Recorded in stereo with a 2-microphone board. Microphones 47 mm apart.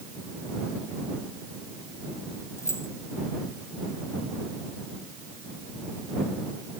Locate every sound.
2.6 s keys jangling: 80° left